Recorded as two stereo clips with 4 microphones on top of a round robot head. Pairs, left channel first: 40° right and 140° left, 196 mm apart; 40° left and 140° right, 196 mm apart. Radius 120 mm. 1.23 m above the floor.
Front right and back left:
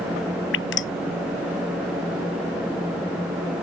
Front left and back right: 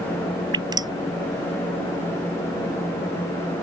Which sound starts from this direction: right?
Dripping, at 0.5 s.